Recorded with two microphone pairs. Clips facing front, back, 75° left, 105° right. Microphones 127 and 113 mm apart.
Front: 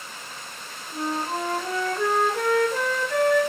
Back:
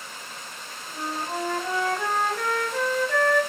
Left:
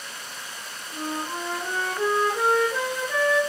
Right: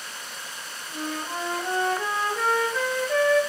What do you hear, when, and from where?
0.9 s a flute: 25° left, 1.3 m